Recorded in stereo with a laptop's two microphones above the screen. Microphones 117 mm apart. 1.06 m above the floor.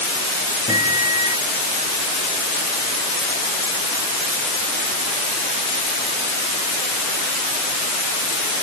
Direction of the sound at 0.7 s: 85° left.